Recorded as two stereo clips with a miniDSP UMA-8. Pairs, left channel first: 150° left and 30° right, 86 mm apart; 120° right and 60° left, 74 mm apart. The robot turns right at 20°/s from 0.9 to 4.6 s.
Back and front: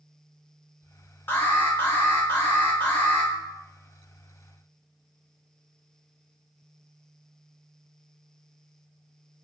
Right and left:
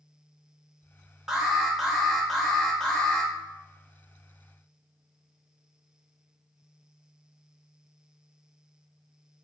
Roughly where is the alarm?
Behind left.